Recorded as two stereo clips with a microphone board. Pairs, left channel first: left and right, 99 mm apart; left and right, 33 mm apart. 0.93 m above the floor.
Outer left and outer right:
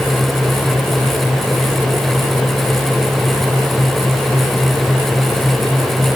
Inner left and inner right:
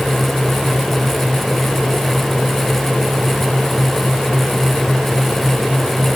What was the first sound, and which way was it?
Only background noise.